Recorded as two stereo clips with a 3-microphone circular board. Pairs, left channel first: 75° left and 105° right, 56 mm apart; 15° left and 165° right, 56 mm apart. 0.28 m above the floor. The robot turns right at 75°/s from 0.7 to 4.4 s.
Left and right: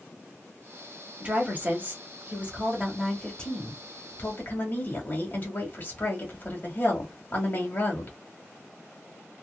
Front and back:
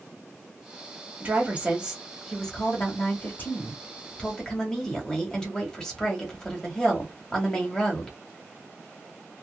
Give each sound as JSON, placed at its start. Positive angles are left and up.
{"t": 1.2, "sound": "a woman speaking", "azimuth_deg": -155, "distance_m": 1.1}